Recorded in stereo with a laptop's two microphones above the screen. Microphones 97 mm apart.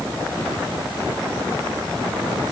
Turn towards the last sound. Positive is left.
No sound to turn to.